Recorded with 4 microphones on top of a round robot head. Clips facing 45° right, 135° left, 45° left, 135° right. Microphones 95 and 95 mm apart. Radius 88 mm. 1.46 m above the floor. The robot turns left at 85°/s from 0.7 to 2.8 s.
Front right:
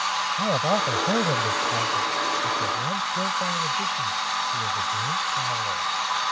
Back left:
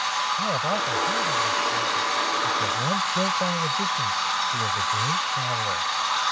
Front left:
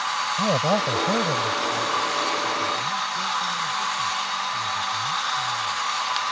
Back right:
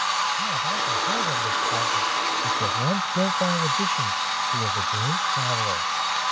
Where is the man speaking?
30° left; by 5.9 s 150° right.